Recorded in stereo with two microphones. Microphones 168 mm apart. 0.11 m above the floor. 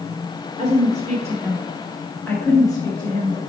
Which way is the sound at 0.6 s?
30° right (ahead or behind).